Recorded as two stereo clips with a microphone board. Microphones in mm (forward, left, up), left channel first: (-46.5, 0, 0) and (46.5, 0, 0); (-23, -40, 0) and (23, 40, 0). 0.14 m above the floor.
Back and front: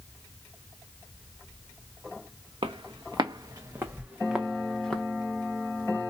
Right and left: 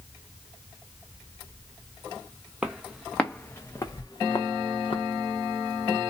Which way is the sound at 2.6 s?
25° right.